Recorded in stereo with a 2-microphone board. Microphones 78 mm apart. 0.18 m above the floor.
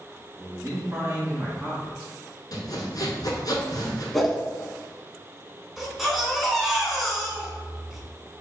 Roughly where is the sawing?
Left.